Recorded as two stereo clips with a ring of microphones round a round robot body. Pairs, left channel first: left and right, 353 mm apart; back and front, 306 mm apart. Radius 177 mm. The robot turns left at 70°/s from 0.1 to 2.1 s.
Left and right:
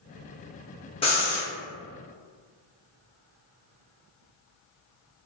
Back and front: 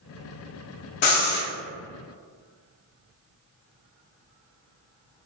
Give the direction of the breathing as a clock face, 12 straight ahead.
6 o'clock.